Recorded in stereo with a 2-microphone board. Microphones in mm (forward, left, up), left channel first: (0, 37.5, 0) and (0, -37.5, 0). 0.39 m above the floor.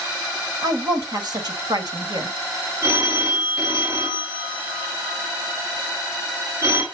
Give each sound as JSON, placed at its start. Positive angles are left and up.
{"t": 0.6, "sound": "a woman speaking", "side_deg": -60, "distance_m": 1.8}
{"t": 2.8, "sound": "a phone ringing", "side_deg": -40, "distance_m": 3.5}